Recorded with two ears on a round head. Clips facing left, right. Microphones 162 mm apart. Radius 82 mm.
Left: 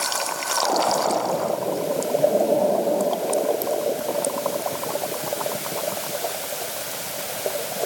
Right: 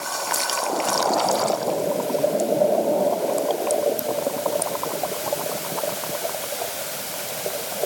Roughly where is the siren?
I don't hear a siren.